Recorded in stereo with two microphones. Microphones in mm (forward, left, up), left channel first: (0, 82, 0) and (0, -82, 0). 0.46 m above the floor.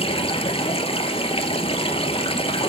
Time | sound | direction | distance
0.0 | running water | 35° left (ahead or behind) | 1.2 m